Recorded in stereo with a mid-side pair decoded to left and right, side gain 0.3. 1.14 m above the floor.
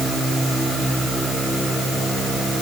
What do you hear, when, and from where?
Only background noise.